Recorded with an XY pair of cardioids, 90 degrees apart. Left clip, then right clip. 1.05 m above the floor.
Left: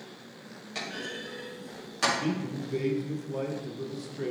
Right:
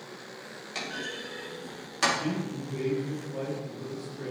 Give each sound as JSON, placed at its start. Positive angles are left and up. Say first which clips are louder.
{"t": 0.8, "sound": "a clunk", "louder": "right 1 dB", "azimuth_deg": -20, "distance_m": 3.0}
{"t": 2.1, "sound": "a man speaking", "louder": "left 1 dB", "azimuth_deg": 45, "distance_m": 1.7}